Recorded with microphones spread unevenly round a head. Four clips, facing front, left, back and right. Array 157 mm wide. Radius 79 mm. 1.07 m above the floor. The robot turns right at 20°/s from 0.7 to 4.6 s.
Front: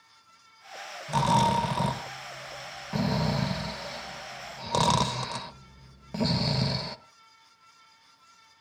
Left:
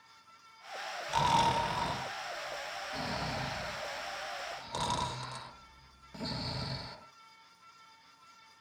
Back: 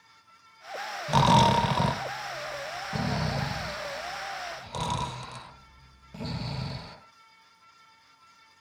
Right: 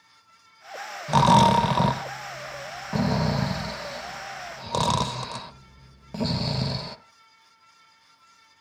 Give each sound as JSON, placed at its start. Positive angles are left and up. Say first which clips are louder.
{"t": 1.1, "sound": "snoring", "louder": "right 11 dB, back 3 dB", "azimuth_deg": -115, "distance_m": 1.7}